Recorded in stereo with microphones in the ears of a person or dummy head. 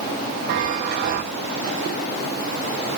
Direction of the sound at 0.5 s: 55° right (ahead or behind).